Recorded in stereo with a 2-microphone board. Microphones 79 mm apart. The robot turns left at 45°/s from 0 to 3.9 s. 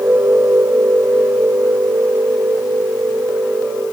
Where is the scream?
I don't hear a scream.